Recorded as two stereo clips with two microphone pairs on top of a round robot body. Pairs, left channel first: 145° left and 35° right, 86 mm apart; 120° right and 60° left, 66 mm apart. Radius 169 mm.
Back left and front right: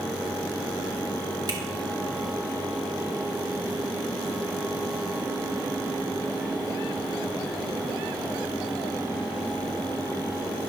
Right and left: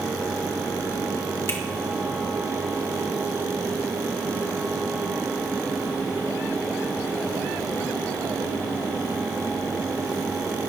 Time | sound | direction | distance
1.5 | a finger snap | 75° right | 3.5 m